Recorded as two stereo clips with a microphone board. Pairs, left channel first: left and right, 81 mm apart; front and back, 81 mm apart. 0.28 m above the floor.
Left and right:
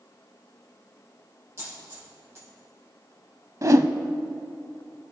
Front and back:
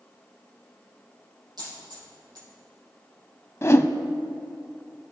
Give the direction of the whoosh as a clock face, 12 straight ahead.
2 o'clock.